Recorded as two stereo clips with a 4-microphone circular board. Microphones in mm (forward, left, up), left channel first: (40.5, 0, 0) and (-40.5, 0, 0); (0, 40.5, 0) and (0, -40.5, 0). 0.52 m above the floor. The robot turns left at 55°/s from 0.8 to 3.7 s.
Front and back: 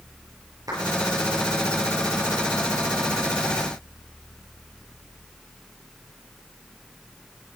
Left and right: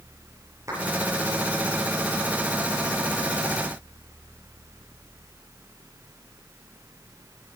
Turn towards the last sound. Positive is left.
turn(degrees=60)